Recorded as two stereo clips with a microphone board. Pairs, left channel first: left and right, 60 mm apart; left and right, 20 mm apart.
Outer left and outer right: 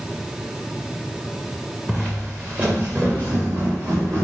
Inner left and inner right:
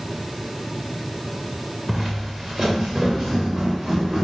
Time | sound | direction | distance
1.9 | footsteps | 15° right (ahead or behind) | 0.8 m